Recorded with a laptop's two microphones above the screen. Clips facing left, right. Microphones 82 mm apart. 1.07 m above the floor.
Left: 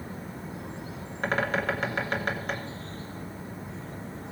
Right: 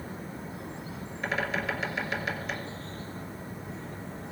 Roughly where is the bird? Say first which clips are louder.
Left 4 dB; left.